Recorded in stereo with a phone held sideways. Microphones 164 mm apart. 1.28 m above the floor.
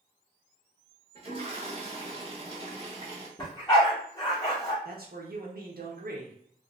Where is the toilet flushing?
35° right (ahead or behind), 1.2 m.